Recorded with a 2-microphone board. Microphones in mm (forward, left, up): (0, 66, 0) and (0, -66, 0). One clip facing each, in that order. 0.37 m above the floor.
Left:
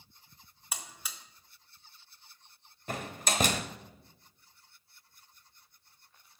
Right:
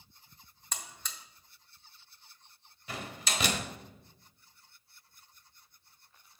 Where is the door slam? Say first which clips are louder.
Left 4 dB; 50° left (ahead or behind), 1.1 m.